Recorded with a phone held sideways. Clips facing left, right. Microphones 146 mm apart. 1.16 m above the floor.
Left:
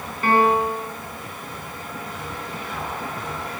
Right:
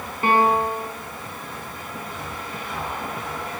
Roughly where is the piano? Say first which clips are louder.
Left 1 dB; right.